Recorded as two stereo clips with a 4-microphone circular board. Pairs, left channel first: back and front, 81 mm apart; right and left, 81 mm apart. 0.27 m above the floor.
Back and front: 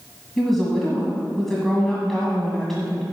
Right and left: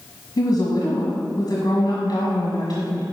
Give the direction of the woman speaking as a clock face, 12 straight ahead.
3 o'clock.